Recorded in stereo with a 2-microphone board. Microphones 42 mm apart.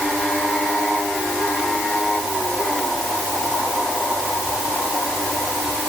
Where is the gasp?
I don't hear a gasp.